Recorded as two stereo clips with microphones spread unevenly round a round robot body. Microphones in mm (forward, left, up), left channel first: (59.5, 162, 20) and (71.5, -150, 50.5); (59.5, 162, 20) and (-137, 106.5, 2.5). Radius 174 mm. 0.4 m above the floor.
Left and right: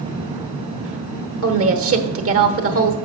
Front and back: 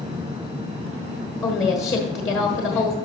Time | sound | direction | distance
1.4 | a woman speaking | 65° right | 1.2 m